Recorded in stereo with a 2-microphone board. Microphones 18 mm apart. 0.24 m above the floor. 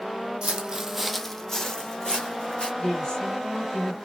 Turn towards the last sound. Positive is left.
turn(degrees=35)  # may be behind; listen again after turning